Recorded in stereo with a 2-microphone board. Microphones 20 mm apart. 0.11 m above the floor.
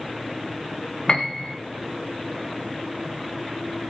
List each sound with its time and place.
1.1 s a piano: 35° left (ahead or behind), 1.8 m